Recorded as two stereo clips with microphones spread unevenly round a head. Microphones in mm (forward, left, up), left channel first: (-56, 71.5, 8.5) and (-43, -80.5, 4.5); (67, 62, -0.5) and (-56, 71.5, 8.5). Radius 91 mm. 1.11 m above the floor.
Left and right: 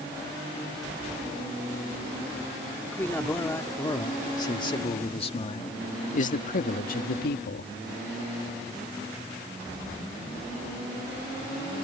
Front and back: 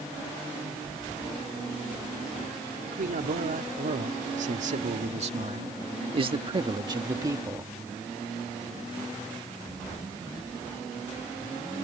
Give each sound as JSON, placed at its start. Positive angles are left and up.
{"t": 2.9, "sound": "a man speaking", "azimuth_deg": 170}